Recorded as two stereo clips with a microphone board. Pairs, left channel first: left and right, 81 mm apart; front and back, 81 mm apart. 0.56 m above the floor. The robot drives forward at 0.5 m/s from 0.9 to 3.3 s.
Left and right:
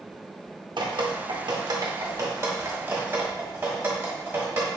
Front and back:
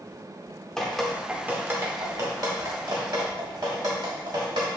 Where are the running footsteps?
No running footsteps in this recording.